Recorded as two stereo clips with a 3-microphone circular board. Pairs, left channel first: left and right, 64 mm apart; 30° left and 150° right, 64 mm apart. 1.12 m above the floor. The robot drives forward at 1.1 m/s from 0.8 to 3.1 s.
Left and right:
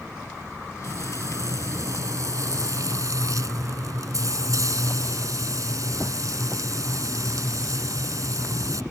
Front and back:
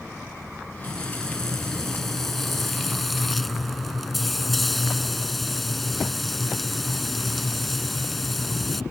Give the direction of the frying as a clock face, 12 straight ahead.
2 o'clock.